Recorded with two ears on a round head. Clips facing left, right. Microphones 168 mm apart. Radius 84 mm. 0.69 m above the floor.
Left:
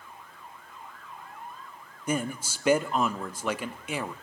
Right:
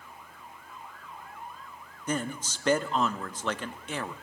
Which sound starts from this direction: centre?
A man speaking, at 2.1 s.